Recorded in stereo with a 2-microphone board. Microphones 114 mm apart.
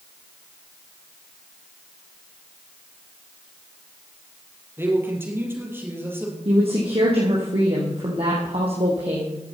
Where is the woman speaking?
60° right (ahead or behind), 4.5 m.